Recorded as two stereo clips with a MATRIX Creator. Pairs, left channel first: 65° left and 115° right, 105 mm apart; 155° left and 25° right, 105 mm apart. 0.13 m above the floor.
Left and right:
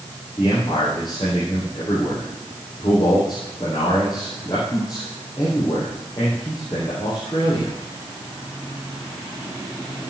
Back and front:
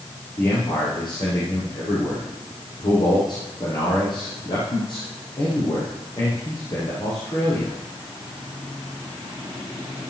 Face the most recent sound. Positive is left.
turn(degrees=115)